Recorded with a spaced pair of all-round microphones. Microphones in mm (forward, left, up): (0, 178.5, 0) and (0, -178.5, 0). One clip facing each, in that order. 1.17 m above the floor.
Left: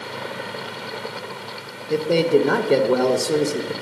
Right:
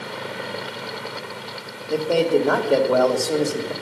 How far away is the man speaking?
About 1.0 m.